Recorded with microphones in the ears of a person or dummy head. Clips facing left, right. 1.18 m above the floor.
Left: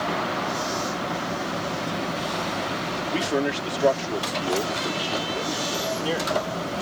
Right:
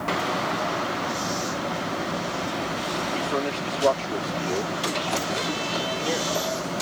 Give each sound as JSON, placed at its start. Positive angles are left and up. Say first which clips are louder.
{"t": 3.1, "sound": "a man speaking", "louder": "left 5 dB", "side_deg": 25}